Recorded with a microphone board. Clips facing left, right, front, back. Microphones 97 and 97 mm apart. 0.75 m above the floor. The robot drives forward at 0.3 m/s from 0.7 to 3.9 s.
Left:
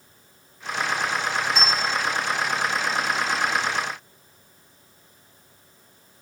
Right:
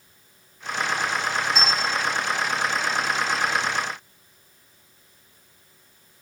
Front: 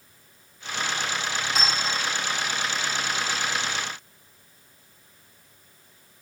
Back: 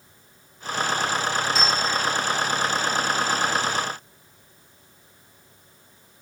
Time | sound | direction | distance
1.6 | a clink | 20° right | 0.8 m